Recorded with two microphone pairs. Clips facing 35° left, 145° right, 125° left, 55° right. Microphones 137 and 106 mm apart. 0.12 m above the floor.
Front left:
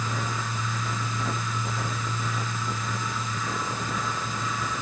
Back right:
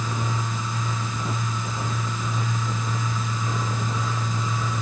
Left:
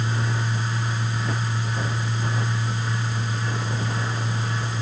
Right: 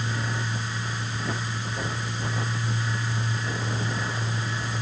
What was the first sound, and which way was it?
Only background noise.